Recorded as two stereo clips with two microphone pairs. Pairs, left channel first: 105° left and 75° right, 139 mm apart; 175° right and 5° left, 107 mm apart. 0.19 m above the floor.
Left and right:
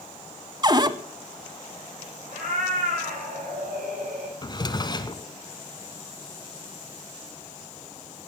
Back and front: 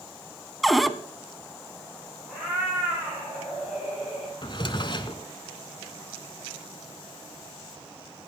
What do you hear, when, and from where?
0.6 s a cupboard door: 85° right, 0.7 m
2.3 s a cat meowing: 85° right, 9.5 m
4.4 s a drawer: 155° left, 1.0 m